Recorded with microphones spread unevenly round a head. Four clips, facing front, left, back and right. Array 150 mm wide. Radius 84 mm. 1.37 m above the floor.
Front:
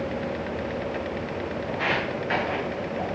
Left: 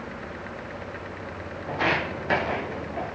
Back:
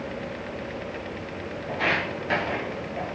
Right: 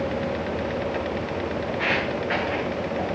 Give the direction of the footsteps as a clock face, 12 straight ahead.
9 o'clock.